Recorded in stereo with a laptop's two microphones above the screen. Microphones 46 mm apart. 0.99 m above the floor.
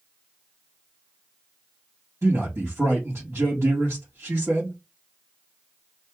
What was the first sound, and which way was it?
A man speaking, 70° right (ahead or behind).